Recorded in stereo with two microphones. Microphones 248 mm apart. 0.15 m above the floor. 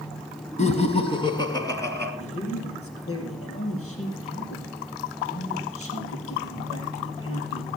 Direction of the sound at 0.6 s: 25° left (ahead or behind).